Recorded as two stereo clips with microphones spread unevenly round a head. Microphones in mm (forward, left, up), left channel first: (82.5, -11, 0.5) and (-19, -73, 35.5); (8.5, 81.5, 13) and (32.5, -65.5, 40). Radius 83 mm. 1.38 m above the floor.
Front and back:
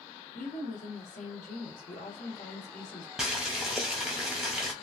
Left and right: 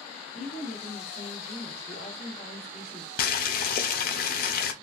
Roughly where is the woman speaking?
Ahead left.